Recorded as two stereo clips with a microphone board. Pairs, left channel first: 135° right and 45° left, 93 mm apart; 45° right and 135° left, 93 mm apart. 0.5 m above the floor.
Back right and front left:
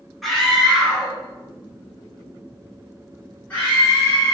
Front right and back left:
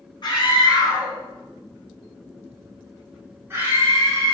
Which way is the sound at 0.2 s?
45° right.